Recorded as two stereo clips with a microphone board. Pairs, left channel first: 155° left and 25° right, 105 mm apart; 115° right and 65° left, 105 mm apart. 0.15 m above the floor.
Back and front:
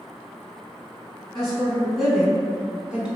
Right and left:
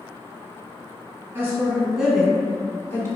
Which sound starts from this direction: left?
A woman speaking, at 1.4 s.